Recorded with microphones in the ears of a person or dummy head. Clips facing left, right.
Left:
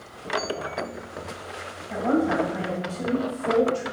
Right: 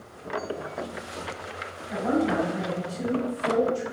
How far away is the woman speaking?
About 1.2 m.